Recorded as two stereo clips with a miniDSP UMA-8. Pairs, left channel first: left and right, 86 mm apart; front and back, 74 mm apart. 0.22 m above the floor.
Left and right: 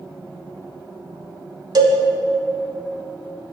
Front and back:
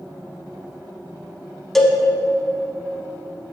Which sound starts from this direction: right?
A cowbell, at 1.8 s.